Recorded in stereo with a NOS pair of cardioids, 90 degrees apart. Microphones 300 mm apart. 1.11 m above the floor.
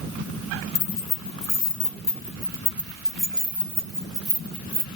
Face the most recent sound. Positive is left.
turn(degrees=-20)